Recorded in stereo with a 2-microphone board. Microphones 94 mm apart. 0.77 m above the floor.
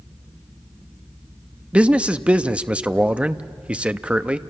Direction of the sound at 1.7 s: 15° right (ahead or behind).